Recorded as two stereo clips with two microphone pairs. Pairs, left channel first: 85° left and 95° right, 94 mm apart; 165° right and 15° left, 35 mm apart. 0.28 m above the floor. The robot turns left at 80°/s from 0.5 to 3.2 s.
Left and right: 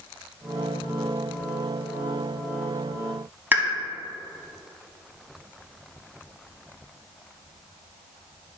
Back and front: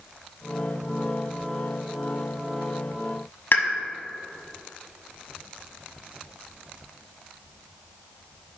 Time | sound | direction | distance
3.5 | a pop | 165° right | 1.2 m